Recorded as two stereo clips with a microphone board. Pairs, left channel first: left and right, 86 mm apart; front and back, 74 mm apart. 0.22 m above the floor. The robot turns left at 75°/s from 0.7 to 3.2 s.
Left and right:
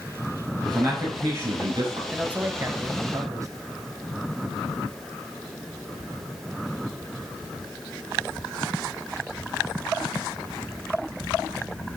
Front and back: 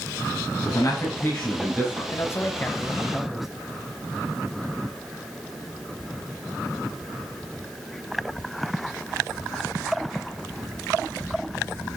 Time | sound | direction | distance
0.7 | a man speaking | 25° right | 4 m
2.1 | a man speaking | 15° right | 1.2 m